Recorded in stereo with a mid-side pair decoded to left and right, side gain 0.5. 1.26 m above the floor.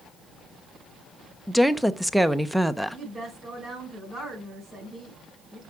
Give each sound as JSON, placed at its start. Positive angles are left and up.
{"t": 1.5, "sound": "a woman speaking", "azimuth_deg": -5, "distance_m": 0.8}
{"t": 2.9, "sound": "a woman speaking", "azimuth_deg": -40, "distance_m": 5.0}